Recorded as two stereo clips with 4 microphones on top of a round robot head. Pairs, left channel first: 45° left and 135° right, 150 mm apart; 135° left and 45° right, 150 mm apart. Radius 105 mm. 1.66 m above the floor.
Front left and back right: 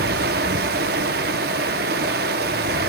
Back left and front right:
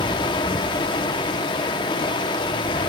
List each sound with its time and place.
0.0 s running water: 165° right, 0.9 m